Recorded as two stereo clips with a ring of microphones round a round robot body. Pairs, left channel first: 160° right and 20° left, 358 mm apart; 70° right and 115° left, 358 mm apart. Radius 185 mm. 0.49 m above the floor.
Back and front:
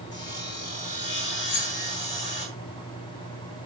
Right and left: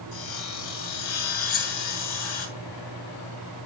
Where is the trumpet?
I don't hear a trumpet.